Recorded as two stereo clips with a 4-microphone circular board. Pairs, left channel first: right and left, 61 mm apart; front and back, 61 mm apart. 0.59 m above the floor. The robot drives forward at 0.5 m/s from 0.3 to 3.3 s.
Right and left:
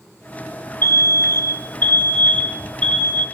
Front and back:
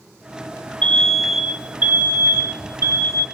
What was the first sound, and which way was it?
An alarm, 60° right.